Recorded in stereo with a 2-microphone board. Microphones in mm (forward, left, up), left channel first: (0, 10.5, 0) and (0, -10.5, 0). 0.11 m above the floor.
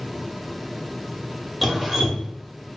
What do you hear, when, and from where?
1.6 s dripping: 5° right (ahead or behind), 0.7 m